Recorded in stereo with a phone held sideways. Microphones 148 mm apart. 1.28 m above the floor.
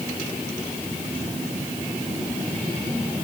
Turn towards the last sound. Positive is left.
No sound to turn to.